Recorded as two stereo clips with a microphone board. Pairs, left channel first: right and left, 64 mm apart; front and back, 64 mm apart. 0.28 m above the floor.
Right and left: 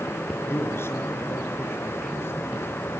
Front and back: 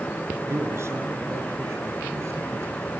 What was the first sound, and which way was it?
A man speaking, 140° right.